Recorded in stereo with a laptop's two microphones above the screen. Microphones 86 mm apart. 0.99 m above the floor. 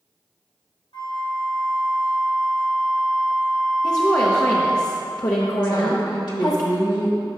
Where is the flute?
70° left (ahead or behind), 1.4 m.